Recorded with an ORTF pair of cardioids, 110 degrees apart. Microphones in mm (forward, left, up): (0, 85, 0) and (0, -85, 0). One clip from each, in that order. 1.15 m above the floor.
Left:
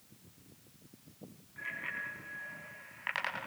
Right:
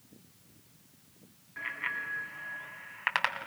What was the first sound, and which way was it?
A bicycle bell, 45° right.